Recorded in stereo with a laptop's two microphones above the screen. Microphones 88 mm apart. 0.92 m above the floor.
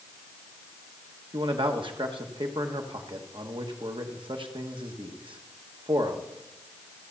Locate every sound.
1.3 s a man speaking: 70° right (ahead or behind), 1.2 m